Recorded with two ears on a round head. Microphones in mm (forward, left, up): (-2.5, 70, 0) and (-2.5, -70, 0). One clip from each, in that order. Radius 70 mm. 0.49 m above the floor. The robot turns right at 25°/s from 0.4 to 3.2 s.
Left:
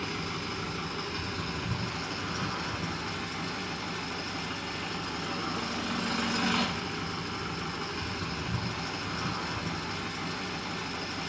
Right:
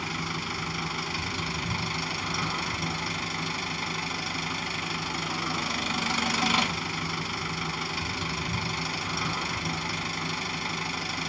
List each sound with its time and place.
0.0 s an engine running: 135° right, 1.3 m; by 11.3 s 65° right, 1.3 m